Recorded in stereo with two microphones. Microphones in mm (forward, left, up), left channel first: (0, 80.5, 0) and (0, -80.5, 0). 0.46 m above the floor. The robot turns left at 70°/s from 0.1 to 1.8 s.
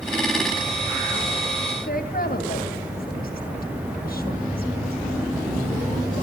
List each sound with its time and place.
1.9 s a woman speaking: 70° left (ahead or behind), 3 m